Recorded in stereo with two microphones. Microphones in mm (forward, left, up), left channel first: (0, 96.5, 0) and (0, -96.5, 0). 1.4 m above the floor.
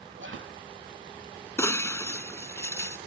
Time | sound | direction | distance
0.2 | whispering | 75° right (ahead or behind) | ?
1.6 | breaking glass | 15° left (ahead or behind) | ?